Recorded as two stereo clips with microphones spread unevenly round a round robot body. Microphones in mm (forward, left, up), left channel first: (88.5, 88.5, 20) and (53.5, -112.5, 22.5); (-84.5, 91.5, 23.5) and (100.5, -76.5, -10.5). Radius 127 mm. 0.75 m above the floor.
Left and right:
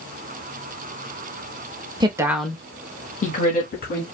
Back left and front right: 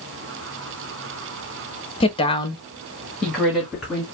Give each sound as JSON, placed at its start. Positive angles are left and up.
{"t": 2.0, "sound": "a woman speaking", "azimuth_deg": -155, "distance_m": 1.1}